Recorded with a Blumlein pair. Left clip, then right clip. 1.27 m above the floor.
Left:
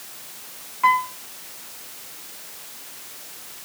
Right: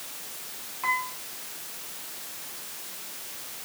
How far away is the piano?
About 2 m.